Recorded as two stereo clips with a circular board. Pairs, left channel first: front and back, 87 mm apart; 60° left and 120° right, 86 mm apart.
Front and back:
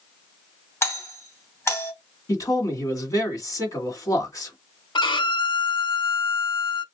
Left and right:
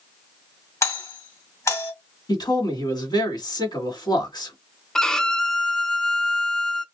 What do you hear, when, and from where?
0.8 s a doorbell: 40° left, 2.5 m
2.3 s a man speaking: 40° left, 1.9 m
5.0 s a violin: 25° right, 0.5 m